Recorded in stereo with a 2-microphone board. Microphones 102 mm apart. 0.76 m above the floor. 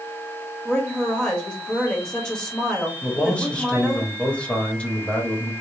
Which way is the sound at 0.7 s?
5° left (ahead or behind).